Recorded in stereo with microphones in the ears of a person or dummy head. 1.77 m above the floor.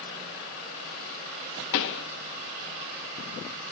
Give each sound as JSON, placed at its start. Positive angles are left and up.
{"t": 1.7, "sound": "a pop", "side_deg": 65, "distance_m": 0.9}